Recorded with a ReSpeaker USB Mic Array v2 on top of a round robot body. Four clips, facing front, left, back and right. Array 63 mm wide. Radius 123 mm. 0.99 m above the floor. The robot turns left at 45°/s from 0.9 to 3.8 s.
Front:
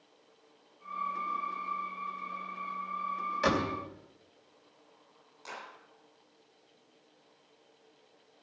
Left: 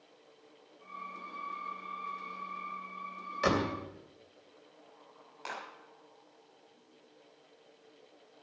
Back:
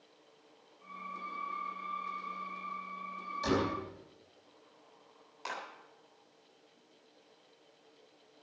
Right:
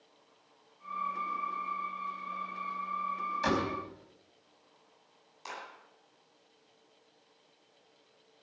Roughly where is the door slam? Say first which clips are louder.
Left 2 dB, front 2 dB; ahead left.